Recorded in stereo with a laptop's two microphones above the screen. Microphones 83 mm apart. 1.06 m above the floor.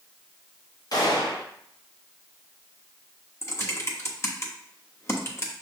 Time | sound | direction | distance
0.9 | a gunshot | 50° left (ahead or behind) | 1.0 m
3.4 | typing on a keyboard | 30° left (ahead or behind) | 1.0 m